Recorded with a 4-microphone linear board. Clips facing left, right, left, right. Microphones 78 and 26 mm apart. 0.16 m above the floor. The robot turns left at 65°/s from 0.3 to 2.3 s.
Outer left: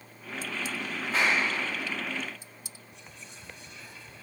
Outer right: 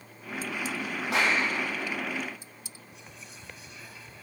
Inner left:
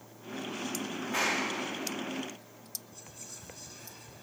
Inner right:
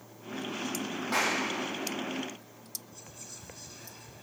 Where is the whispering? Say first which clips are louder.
Outer right 1 dB, inner right 1 dB; 5° right (ahead or behind), 1.1 m.